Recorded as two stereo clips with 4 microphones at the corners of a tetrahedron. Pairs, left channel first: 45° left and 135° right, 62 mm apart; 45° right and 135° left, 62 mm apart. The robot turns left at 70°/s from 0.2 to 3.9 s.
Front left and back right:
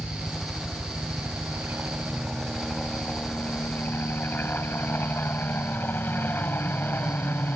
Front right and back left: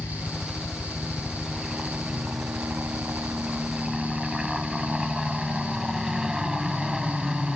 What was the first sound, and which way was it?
A helicopter, 40° right.